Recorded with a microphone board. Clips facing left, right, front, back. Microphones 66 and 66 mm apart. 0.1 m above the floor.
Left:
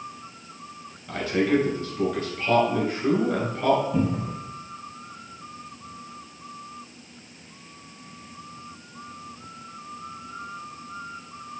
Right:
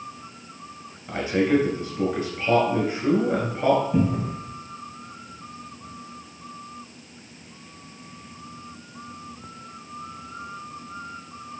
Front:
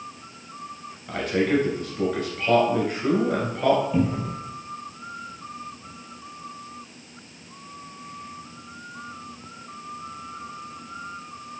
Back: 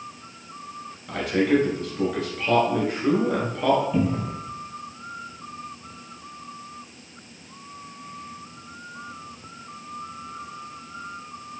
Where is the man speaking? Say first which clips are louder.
Right 1 dB, back 1 dB; 85° right, 1.7 m.